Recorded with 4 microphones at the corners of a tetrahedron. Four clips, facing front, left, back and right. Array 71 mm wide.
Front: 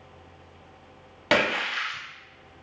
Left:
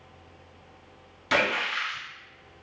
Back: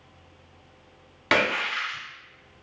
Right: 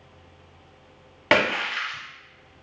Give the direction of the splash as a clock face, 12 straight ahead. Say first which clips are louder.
Right 3 dB, even; 3 o'clock.